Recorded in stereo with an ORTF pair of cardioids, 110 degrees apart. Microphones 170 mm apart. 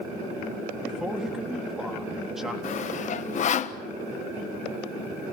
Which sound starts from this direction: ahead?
A man speaking, at 0.8 s.